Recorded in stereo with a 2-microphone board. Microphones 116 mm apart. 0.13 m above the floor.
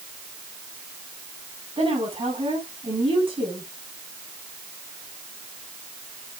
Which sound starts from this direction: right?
A woman speaking, at 1.8 s.